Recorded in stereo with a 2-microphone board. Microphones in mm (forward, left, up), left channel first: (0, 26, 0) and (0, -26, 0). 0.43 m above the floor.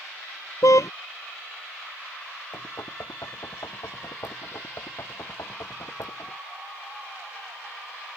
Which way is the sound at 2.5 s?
75° left (ahead or behind).